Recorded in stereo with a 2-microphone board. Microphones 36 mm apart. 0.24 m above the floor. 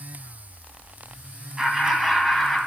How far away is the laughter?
About 1.8 m.